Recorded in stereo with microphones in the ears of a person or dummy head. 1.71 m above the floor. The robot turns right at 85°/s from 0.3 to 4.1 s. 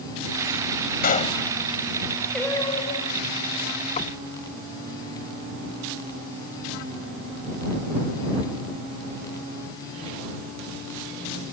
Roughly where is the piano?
No piano in this recording.